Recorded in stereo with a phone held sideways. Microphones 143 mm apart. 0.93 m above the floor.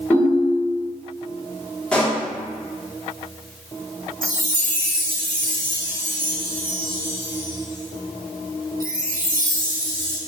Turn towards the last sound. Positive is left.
turn(degrees=-75)  # may be behind; listen again after turning